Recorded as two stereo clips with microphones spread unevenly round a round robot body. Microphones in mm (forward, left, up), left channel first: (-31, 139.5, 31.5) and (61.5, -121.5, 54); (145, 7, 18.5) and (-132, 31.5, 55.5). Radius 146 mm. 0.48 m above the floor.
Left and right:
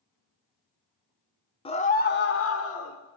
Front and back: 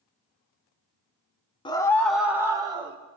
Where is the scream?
55° left, 1.1 m; by 3.0 s 100° left, 1.7 m.